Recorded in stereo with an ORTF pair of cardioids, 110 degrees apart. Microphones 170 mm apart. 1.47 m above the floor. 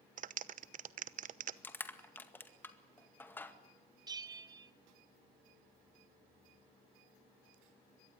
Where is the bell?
25° right, 1.4 m.